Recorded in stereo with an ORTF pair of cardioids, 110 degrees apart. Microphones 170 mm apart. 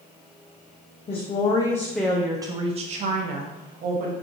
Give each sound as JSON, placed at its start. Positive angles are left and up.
{"t": 1.1, "sound": "a woman speaking", "azimuth_deg": 40, "distance_m": 0.8}